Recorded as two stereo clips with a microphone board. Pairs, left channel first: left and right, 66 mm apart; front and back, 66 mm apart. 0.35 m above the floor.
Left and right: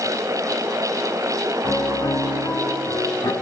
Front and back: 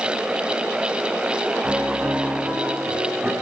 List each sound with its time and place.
1.6 s a piano: 110° left, 3 m